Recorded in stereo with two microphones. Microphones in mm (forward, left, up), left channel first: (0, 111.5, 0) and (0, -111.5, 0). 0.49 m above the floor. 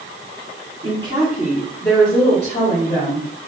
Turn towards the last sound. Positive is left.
turn(degrees=45)  # may be behind; listen again after turning